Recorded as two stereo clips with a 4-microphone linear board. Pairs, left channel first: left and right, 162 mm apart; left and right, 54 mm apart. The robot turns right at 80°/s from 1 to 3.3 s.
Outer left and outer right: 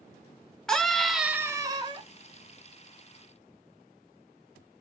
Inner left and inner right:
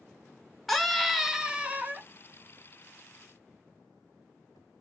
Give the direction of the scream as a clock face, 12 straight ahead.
6 o'clock.